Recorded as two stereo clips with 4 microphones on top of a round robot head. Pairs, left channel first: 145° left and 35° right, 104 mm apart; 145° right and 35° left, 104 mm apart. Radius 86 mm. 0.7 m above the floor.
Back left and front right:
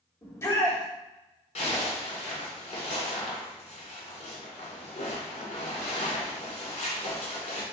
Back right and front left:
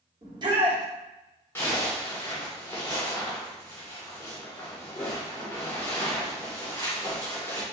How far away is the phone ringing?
I don't hear a phone ringing.